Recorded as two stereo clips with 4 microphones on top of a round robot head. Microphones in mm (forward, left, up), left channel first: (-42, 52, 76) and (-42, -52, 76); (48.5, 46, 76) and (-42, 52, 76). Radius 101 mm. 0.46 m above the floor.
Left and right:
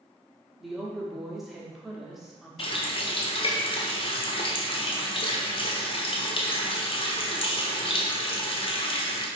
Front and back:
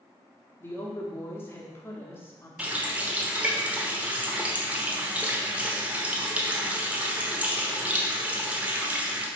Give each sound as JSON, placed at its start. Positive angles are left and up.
{"t": 0.6, "sound": "a woman speaking", "azimuth_deg": -5, "distance_m": 1.1}
{"t": 2.6, "sound": "a running tap", "azimuth_deg": 105, "distance_m": 1.2}